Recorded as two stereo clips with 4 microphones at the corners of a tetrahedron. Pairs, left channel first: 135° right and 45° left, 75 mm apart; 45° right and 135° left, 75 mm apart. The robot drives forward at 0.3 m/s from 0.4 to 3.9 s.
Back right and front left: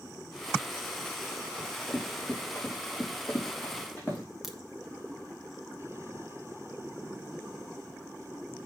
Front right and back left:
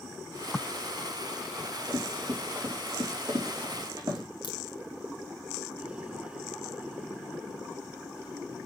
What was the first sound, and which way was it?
Running footsteps, 135° left.